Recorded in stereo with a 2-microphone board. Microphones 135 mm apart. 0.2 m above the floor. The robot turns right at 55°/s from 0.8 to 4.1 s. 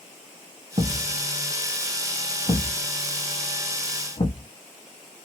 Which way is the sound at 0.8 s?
50° right (ahead or behind).